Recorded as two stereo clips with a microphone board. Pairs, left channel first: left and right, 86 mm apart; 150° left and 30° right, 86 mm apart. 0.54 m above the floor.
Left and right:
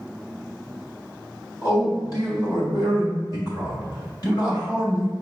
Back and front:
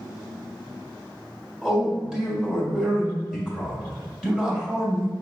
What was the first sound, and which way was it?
A man speaking, 50° left.